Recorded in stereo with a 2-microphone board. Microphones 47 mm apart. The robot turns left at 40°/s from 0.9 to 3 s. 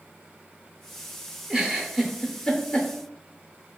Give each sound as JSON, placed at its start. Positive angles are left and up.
{"t": 1.5, "sound": "a giggle", "side_deg": -20, "distance_m": 0.5}